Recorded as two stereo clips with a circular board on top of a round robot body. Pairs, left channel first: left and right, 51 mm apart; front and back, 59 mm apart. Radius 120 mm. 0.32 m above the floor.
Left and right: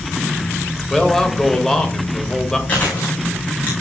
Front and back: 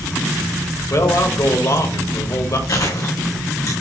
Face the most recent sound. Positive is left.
turn(degrees=25)